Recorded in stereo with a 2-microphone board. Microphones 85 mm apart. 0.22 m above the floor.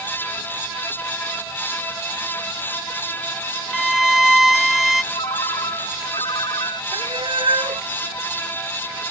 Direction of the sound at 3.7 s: Centre (ahead or behind).